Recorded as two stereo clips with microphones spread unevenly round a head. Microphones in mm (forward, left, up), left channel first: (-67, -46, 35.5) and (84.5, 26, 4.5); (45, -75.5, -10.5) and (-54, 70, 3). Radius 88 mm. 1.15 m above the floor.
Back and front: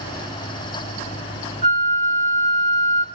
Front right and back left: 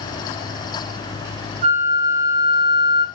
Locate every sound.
1.6 s a flute: 90° left, 0.8 m